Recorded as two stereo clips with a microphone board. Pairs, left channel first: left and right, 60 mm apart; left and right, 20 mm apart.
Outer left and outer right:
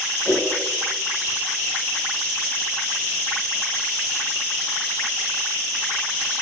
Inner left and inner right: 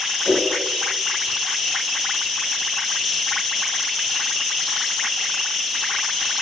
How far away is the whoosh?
About 2.5 m.